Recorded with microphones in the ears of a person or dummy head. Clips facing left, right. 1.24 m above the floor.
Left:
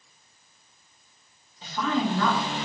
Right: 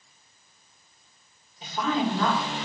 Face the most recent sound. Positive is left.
turn(degrees=-10)  # may be behind; listen again after turning